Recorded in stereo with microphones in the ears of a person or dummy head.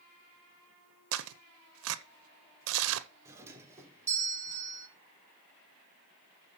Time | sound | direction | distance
1.1 | tearing paper | 75° right (ahead or behind) | 1.0 m
3.2 | a doorbell | 15° right (ahead or behind) | 2 m